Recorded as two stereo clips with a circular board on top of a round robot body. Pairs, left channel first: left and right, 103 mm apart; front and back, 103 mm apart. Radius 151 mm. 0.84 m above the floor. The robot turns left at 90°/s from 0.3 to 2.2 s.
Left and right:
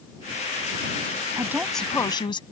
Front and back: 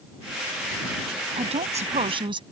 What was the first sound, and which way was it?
A woman speaking, 150° right.